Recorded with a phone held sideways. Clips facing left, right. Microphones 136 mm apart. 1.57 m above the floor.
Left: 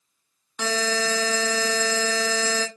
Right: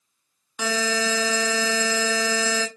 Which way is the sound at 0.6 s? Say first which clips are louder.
Even; 5° right (ahead or behind).